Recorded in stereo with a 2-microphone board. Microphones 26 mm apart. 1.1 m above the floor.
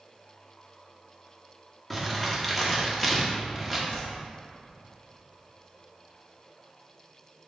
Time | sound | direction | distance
1.9 | crumpling | 10° left (ahead or behind) | 1.1 m
3.9 | a whoosh | 65° left (ahead or behind) | 1.5 m